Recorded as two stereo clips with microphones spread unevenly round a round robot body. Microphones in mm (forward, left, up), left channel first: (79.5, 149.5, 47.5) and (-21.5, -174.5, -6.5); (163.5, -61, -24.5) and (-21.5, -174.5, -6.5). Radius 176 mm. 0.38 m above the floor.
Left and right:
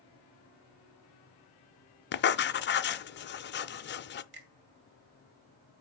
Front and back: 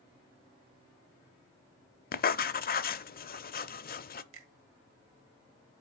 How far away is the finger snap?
About 1.9 m.